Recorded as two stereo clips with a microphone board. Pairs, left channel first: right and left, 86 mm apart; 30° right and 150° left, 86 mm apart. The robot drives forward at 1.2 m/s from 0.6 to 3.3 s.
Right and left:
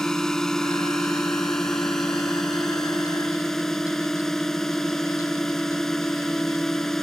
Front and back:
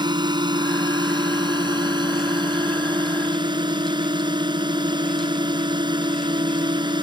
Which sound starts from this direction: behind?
A drone, at 0.0 s.